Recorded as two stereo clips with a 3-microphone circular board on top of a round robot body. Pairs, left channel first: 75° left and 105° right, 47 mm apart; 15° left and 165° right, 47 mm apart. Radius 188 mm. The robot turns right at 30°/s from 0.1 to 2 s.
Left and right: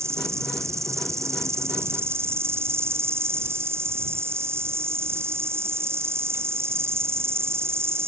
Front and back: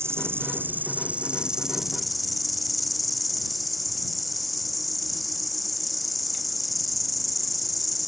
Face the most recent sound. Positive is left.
turn(degrees=-75)